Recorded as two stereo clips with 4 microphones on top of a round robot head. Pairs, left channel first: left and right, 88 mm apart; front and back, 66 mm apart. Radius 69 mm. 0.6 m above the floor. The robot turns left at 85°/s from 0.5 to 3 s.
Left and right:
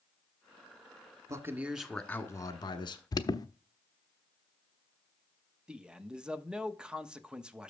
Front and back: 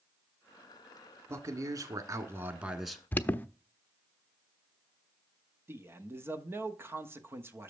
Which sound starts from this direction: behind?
A man speaking, at 5.7 s.